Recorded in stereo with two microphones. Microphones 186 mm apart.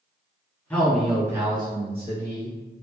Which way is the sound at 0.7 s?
10° left (ahead or behind).